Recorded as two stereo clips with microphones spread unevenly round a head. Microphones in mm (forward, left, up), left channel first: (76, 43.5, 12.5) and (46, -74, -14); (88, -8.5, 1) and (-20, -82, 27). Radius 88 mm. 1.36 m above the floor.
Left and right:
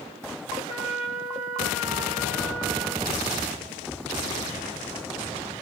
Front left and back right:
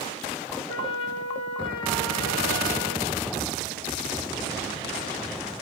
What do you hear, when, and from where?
0.7 s a trumpet: 45° left, 3 m